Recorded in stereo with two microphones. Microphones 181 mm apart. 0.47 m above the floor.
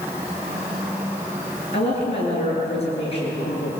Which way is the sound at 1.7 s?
35° left (ahead or behind).